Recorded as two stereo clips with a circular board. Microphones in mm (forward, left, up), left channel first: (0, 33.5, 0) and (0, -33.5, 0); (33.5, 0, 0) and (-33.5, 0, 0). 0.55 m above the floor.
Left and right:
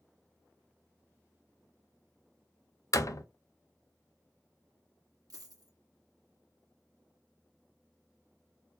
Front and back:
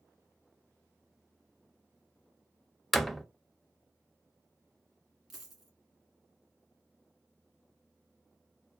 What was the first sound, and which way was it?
A door slam, 85° left.